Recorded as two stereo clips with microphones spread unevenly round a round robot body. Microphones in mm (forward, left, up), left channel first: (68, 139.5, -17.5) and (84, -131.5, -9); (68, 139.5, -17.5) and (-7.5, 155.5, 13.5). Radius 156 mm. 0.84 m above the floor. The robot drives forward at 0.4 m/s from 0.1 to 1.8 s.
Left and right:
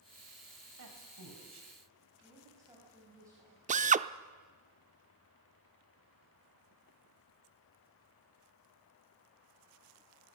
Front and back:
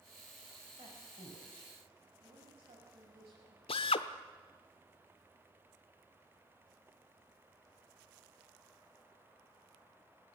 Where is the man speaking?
130° right, 3.5 m; by 1.7 s 135° right, 4 m.